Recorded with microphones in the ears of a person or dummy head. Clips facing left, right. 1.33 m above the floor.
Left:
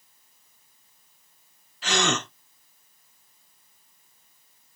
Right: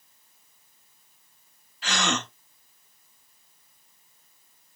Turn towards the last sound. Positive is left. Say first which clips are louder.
# left 3 dB
turn(degrees=85)